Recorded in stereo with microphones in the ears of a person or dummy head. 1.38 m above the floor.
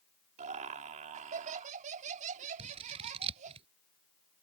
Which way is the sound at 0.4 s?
40° right (ahead or behind).